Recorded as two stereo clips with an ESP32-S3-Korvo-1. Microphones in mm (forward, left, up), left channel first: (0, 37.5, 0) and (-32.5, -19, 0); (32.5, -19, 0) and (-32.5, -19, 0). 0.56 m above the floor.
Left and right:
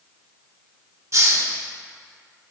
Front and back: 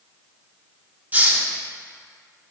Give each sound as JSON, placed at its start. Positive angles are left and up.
{"t": 1.1, "sound": "a hiss", "azimuth_deg": -125, "distance_m": 0.8}